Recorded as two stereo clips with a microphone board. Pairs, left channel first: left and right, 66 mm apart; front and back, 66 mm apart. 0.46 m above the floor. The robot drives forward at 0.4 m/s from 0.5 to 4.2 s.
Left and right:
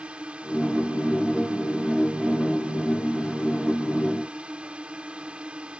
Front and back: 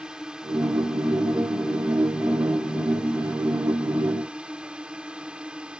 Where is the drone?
125° right; by 5.8 s 130° right.